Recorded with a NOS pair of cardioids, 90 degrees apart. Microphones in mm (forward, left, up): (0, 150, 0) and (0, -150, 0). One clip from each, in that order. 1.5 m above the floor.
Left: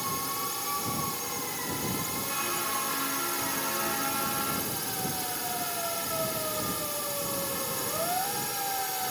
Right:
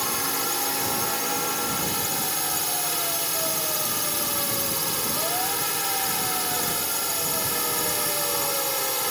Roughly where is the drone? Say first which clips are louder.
Right 5 dB; ahead right.